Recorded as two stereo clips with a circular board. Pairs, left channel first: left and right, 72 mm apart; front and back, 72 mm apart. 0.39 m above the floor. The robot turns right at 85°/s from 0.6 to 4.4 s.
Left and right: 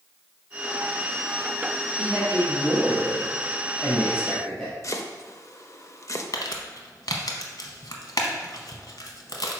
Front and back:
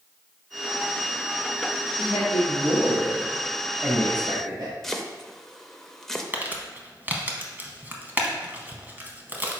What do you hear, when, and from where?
2.0 s a man speaking: 25° right, 2 m; by 4.7 s straight behind, 2 m
4.8 s chopping: 85° left, 0.5 m
6.3 s crumpling: 115° left, 0.9 m